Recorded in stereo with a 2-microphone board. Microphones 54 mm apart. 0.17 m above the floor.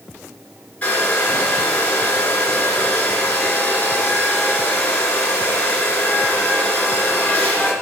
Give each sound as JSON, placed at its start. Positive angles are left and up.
{"t": 0.8, "sound": "a hair dryer", "side_deg": 25, "distance_m": 3.0}